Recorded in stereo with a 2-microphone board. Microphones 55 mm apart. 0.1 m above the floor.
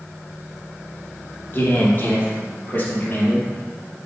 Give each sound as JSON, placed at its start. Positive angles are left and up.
{"t": 1.5, "sound": "a man speaking", "side_deg": 40, "distance_m": 3.0}